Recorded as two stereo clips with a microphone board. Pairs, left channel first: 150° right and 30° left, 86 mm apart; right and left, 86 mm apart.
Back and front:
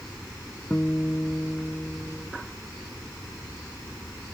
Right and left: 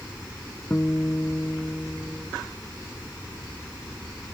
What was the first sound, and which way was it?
A guitar, 120° right.